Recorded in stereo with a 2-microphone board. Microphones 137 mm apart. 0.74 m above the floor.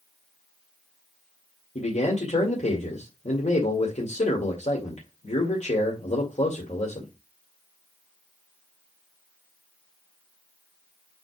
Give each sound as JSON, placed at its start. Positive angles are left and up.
{"t": 1.8, "sound": "a man speaking", "side_deg": 60, "distance_m": 2.0}